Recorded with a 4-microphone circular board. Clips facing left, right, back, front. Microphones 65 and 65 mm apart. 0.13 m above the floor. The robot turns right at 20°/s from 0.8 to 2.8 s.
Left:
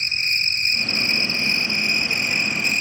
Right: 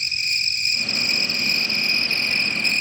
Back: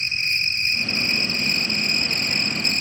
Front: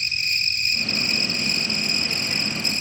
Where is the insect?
130° left, 1.1 m; by 2.8 s 170° left, 1.1 m.